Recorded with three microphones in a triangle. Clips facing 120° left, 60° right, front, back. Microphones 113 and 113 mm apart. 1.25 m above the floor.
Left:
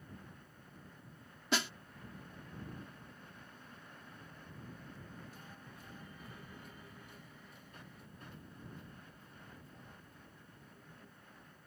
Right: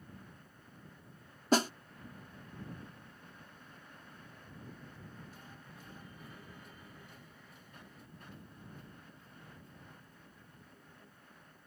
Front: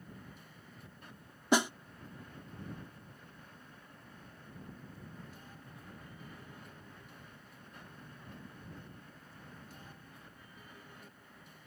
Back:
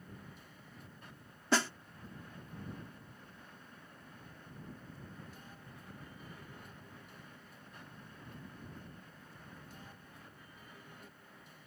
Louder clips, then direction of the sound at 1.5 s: Right 8 dB, front 3 dB; 65° right.